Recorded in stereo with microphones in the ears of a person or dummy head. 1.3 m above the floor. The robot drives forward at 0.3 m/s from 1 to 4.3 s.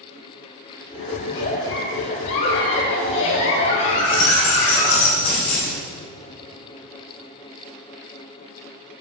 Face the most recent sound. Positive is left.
turn(degrees=75)  # may be behind; listen again after turning